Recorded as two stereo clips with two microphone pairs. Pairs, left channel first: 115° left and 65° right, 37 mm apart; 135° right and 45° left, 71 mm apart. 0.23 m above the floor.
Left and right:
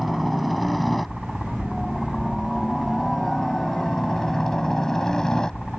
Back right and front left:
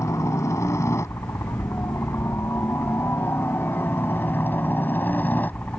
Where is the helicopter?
155° right; by 5.8 s 175° left.